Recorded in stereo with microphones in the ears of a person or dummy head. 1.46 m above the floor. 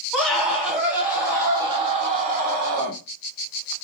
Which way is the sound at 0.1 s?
5° left (ahead or behind).